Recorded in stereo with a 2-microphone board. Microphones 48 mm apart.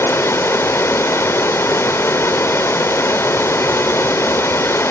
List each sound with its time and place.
0.0 s running water: 65° left (ahead or behind), 0.8 m